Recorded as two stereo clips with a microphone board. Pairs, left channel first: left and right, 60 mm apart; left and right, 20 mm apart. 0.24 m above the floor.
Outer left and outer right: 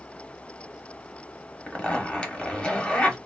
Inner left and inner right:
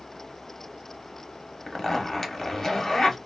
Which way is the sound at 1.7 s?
20° left (ahead or behind).